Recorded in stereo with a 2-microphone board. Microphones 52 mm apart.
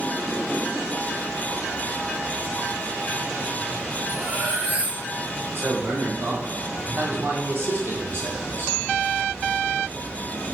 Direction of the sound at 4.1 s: 30° right (ahead or behind).